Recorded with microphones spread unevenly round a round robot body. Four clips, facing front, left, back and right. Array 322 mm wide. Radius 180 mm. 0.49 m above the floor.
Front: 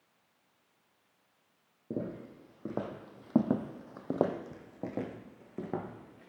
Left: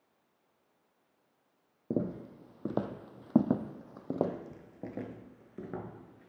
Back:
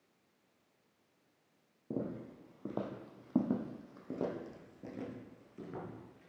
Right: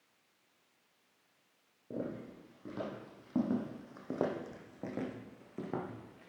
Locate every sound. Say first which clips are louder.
1.9 s footsteps: left 6 dB, front 2 dB; 75° left, 1.0 m; by 6.3 s 25° right, 1.9 m